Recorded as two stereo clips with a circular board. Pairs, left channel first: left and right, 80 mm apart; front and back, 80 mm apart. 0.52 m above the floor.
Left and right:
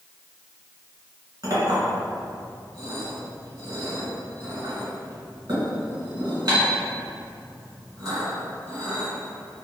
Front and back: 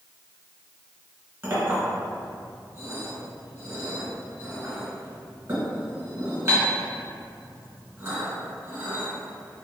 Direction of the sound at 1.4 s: 130° right.